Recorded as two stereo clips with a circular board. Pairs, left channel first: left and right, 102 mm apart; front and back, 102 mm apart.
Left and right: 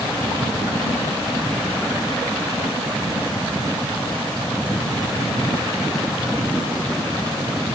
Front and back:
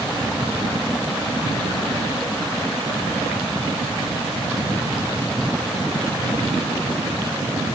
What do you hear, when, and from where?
Only background noise.